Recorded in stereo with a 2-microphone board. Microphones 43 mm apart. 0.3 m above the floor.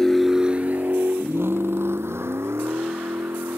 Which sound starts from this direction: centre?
A vehicle, at 0.0 s.